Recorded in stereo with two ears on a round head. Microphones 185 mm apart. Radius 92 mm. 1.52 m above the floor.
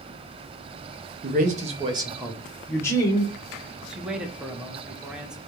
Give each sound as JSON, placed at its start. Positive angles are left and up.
{"t": 1.2, "sound": "a man speaking", "side_deg": -45, "distance_m": 0.9}
{"t": 3.9, "sound": "a man speaking", "side_deg": -5, "distance_m": 0.7}